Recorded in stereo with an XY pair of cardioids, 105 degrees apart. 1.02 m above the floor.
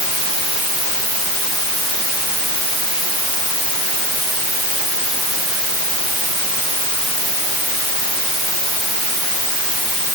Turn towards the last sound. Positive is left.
No sound to turn to.